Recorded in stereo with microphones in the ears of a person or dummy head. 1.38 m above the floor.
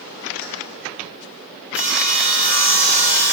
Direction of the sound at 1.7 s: 5° right (ahead or behind).